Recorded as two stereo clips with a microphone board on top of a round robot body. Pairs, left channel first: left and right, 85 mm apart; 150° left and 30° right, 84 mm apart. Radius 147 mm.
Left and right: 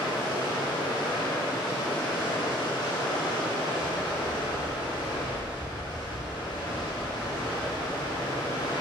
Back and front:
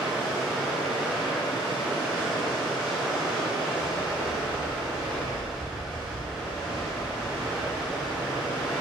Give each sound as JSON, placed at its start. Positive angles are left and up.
{"t": 0.0, "sound": "running water", "azimuth_deg": 45, "distance_m": 1.4}
{"t": 3.8, "sound": "a dog barking", "azimuth_deg": -160, "distance_m": 1.4}